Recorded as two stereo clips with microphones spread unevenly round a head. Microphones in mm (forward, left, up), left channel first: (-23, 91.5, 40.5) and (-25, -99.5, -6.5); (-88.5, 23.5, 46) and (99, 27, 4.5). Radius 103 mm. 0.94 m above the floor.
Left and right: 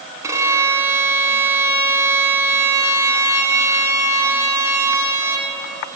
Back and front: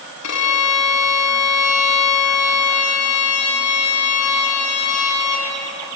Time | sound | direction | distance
0.2 | a violin | 170° right | 3.5 m